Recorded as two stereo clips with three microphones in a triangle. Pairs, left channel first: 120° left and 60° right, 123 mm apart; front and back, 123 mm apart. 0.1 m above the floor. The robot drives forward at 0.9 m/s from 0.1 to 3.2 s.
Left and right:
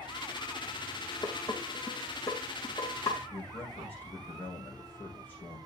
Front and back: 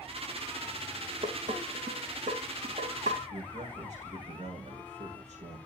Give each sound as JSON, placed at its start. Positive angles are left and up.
{"t": 1.2, "sound": "dishes clattering", "azimuth_deg": -175, "distance_m": 3.0}
{"t": 3.3, "sound": "a man speaking", "azimuth_deg": -165, "distance_m": 4.5}